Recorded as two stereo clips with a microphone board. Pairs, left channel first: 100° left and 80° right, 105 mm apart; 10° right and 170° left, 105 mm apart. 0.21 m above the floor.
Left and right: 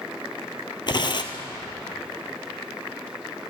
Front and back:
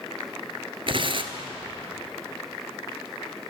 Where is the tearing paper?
140° left, 0.9 m.